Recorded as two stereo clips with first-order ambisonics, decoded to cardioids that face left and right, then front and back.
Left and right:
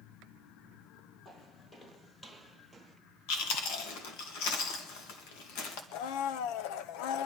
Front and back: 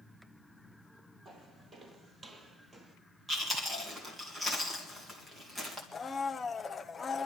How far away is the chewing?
About 2 m.